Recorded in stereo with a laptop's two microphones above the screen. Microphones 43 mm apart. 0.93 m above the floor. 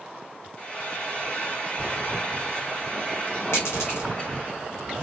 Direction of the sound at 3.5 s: 75° left (ahead or behind).